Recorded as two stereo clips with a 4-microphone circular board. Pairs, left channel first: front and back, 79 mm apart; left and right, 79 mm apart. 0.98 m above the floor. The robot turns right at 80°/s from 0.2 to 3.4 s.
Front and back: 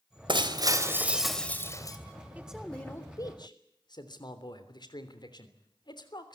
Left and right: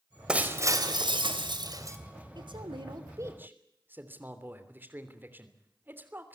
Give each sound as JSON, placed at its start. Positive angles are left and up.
{"t": 0.3, "sound": "breaking glass", "azimuth_deg": -170, "distance_m": 2.5}
{"t": 2.4, "sound": "a man speaking", "azimuth_deg": -110, "distance_m": 3.0}